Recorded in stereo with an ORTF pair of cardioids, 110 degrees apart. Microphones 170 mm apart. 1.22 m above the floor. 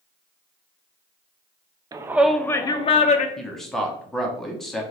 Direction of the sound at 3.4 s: Straight ahead.